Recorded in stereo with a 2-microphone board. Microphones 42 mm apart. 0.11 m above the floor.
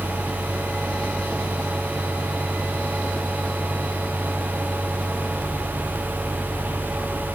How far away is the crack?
No crack in this recording.